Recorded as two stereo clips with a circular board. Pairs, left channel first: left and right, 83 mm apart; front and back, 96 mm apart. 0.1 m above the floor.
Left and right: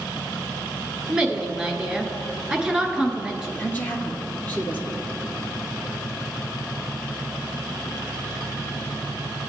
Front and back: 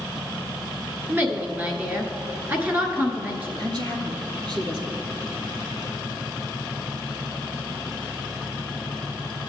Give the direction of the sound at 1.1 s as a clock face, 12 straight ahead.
5 o'clock.